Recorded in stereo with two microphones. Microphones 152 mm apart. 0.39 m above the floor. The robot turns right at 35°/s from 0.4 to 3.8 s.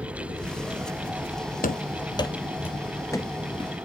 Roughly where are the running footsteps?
Left.